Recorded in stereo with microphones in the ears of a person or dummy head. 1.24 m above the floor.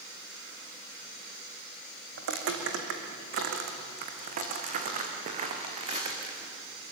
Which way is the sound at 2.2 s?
70° right (ahead or behind).